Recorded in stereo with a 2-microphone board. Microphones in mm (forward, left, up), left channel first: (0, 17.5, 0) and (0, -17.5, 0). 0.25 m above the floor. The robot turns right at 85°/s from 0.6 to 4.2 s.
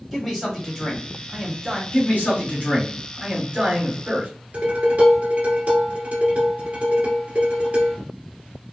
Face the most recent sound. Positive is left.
turn(degrees=-70)  # may be behind; listen again after turning